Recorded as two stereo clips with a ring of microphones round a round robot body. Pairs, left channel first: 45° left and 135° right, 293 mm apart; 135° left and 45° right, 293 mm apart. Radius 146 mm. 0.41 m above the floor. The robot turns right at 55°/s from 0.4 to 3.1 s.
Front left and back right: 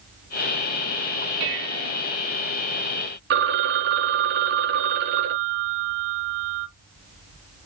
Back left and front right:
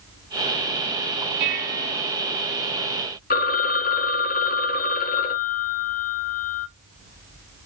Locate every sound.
1.4 s dishes clattering: 100° right, 1.6 m; by 2.0 s 65° right, 1.6 m
3.3 s a phone ringing: 175° right, 0.7 m